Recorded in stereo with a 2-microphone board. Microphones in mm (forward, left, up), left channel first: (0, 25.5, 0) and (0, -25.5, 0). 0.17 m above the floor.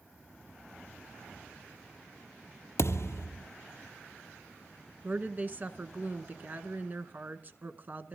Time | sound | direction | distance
2.8 | a thud | 65° left (ahead or behind) | 1.1 m
5.0 | a woman speaking | 40° right (ahead or behind) | 1.6 m